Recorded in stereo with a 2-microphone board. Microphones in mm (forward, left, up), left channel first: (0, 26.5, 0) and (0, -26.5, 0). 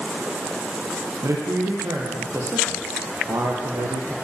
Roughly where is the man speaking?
Right.